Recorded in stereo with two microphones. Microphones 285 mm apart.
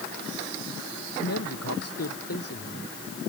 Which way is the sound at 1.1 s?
60° left (ahead or behind).